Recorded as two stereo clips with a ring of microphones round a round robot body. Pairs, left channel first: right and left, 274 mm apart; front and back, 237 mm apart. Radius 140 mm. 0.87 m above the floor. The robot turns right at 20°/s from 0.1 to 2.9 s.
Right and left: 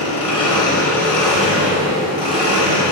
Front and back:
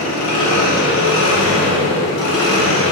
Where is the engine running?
25° right, 3 m; by 2.9 s 30° left, 3 m.